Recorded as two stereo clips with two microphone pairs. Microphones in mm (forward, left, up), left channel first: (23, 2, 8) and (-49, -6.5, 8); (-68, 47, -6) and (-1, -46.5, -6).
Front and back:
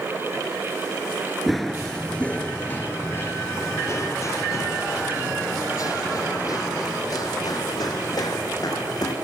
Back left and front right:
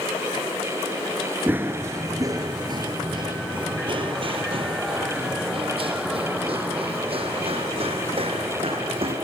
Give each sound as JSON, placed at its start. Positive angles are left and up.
{"t": 1.5, "sound": "running footsteps", "azimuth_deg": -90, "distance_m": 1.7}